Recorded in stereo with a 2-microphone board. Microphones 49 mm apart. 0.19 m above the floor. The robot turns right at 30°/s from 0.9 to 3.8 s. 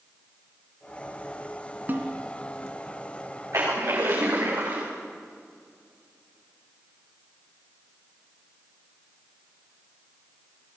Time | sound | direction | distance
1.9 | a snare drum | 40° right (ahead or behind) | 2.5 m
3.5 | a splash | 65° right (ahead or behind) | 8 m